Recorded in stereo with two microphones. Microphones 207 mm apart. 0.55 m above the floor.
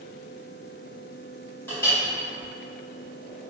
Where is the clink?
10° left (ahead or behind), 1.7 m.